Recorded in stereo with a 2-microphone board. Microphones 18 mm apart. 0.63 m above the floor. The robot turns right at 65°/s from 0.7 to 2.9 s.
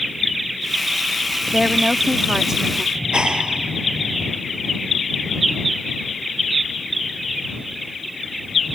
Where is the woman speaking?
115° right; by 2.9 s 25° right.